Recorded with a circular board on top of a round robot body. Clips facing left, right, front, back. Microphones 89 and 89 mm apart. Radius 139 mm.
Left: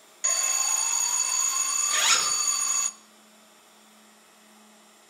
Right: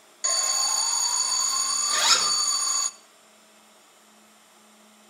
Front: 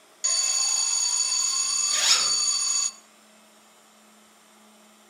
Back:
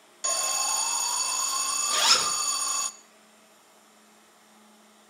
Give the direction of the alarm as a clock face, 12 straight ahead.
5 o'clock.